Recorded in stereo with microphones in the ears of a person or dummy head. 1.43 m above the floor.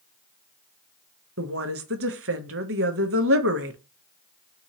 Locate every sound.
1.4 s a woman speaking: 65° right (ahead or behind), 0.6 m